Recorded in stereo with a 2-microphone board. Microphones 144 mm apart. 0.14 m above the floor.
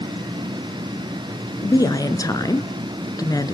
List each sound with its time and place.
1.6 s a woman speaking: 25° left (ahead or behind), 1.8 m